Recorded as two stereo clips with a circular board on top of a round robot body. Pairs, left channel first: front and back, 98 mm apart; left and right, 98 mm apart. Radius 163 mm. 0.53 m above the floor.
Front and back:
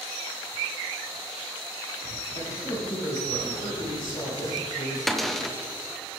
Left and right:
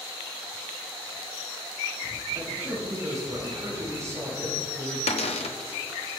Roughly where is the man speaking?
Ahead right.